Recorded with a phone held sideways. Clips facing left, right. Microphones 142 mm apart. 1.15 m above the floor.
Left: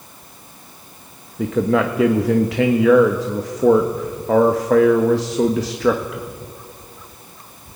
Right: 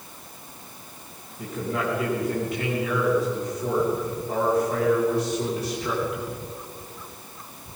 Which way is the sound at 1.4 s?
80° left.